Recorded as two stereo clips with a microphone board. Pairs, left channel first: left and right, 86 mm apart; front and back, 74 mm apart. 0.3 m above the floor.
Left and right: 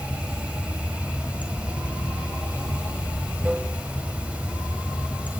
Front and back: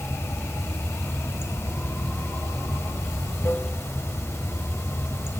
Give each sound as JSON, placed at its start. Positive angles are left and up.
{"t": 0.0, "sound": "running water", "azimuth_deg": -25, "distance_m": 1.0}